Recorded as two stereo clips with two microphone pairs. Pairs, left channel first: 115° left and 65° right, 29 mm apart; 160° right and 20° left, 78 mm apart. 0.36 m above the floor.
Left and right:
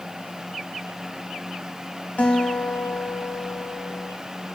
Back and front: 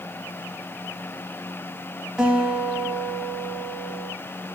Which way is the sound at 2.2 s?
95° left.